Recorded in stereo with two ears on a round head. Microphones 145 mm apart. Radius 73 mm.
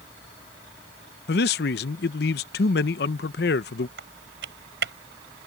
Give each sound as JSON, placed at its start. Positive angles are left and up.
{"t": 1.3, "sound": "a man speaking", "side_deg": 70}
{"t": 4.0, "sound": "typing on a keyboard", "side_deg": -85}